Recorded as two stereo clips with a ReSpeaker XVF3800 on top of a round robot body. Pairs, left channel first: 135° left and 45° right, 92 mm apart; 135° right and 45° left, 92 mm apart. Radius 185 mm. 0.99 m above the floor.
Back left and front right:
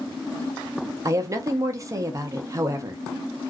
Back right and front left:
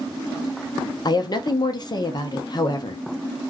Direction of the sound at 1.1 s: 100° right.